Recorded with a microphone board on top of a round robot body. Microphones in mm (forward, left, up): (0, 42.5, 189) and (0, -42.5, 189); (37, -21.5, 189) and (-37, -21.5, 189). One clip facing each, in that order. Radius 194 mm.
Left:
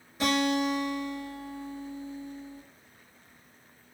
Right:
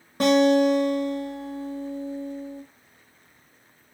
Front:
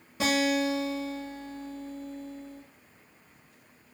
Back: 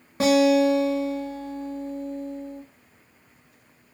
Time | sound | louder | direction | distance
0.2 | a guitar | right 9 dB, back 9 dB | 130° right | 0.6 m